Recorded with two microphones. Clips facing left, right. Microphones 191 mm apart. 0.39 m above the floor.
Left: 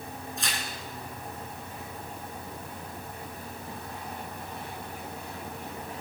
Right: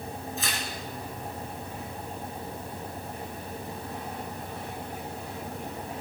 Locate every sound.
0.4 s tearing paper: centre (ahead or behind), 3 m